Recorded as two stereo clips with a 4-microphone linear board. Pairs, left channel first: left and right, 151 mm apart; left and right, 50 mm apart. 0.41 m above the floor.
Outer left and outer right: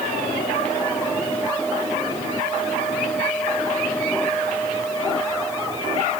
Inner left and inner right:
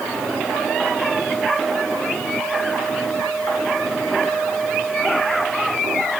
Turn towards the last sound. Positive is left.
No sound to turn to.